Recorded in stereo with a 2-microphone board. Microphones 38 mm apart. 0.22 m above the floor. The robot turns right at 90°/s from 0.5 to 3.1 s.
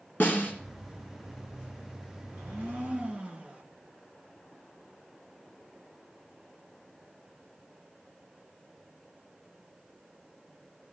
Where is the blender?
100° right, 3 m; by 3.6 s 30° right, 3 m.